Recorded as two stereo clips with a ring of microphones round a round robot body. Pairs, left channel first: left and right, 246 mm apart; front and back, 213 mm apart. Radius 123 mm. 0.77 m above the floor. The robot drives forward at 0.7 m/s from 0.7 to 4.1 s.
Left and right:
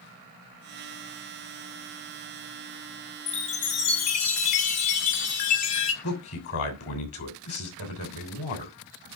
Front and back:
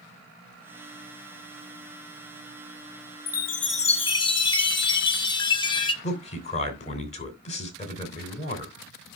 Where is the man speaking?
60° left, 3 m.